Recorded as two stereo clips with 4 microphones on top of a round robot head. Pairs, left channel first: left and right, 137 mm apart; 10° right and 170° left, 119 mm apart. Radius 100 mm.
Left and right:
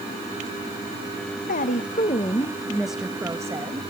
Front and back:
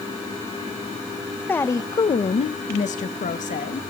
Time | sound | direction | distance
1.5 | a woman speaking | 65° left | 1.1 m